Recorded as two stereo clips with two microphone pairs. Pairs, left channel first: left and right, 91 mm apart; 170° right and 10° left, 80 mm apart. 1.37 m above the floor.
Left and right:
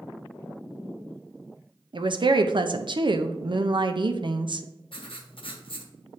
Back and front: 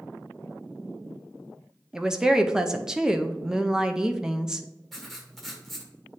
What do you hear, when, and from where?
1.9 s a woman speaking: 70° right, 0.5 m
4.9 s writing: 100° left, 1.0 m